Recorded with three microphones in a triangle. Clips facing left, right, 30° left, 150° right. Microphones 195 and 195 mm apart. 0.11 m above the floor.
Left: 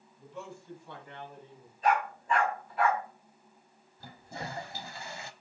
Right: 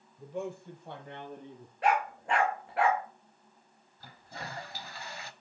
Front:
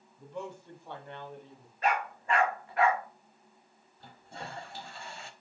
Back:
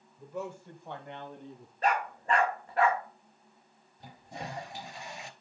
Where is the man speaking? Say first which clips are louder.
Right 7 dB, back 2 dB; 65° right, 3.5 m; by 1.7 s 95° right, 4 m.